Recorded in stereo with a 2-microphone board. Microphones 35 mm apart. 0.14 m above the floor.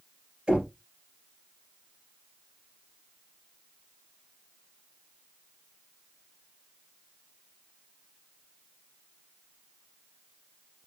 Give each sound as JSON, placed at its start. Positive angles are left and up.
{"t": 0.5, "sound": "knocking", "side_deg": -20, "distance_m": 2.0}